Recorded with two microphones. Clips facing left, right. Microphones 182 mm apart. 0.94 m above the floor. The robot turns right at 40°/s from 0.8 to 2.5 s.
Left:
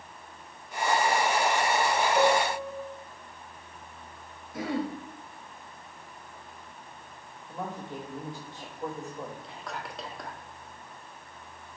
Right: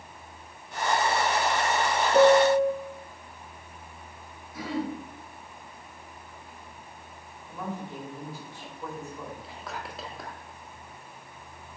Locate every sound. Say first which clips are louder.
2.1 s a piano: right 10 dB; 65° right (ahead or behind), 1.3 m; by 2.7 s 55° right (ahead or behind), 1.3 m
4.5 s throat clearing: left 1 dB; 50° left (ahead or behind), 1.9 m
7.5 s a woman speaking: right 1 dB; 20° left (ahead or behind), 4.5 m
9.4 s whispering: even; centre (ahead or behind), 1.5 m